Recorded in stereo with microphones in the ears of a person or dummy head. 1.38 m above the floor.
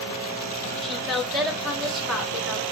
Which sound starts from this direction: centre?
A woman speaking, at 0.8 s.